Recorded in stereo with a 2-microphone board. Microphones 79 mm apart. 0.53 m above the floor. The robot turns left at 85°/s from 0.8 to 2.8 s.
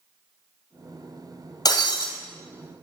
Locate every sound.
1.6 s breaking glass: 125° left, 2.5 m; by 2.1 s 85° left, 2.5 m